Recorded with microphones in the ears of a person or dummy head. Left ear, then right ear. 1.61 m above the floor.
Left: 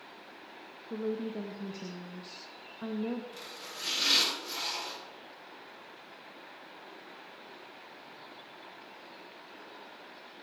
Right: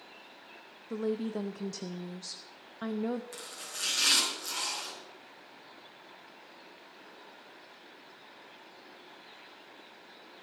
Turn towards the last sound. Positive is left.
turn(degrees=-50)  # may be behind; listen again after turning